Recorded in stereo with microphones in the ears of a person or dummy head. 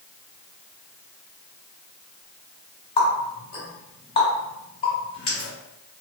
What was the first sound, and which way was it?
A running tap, 35° left (ahead or behind).